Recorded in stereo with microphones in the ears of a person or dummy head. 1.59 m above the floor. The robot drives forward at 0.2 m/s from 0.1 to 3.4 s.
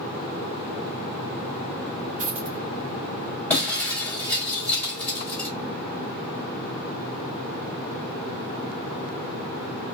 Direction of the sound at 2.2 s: 45° right (ahead or behind).